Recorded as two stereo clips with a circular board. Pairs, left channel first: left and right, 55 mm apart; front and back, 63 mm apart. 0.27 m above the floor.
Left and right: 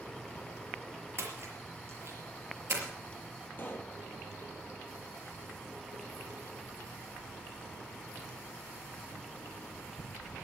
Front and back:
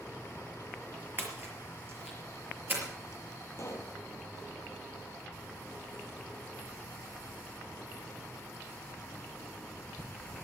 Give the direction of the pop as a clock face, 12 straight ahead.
11 o'clock.